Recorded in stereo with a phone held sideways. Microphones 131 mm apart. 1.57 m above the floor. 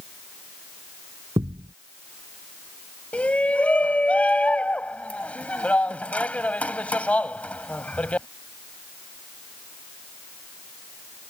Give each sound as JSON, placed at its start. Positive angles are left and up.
{"t": 1.4, "sound": "a thud", "side_deg": -40}
{"t": 3.1, "sound": "a shout", "side_deg": 10}